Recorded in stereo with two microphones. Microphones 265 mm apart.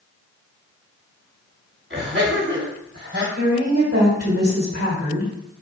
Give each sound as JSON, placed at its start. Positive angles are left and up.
{"t": 1.9, "sound": "laughter", "side_deg": -50, "distance_m": 2.5}
{"t": 3.4, "sound": "a woman speaking", "side_deg": -60, "distance_m": 1.8}